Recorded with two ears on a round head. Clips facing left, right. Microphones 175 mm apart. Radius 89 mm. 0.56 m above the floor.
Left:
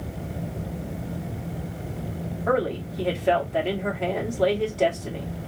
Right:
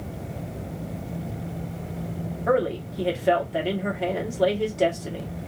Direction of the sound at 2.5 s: 5° right (ahead or behind).